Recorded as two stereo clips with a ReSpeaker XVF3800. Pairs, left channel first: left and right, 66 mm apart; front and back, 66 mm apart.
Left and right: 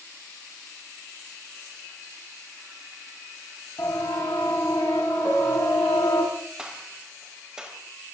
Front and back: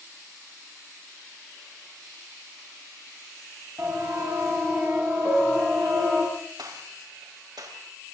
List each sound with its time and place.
3.8 s a siren: 125° left, 6.5 m; by 6.2 s 105° left, 7.5 m
5.2 s a piano: 30° left, 7 m
6.6 s a gunshot: 170° right, 5.5 m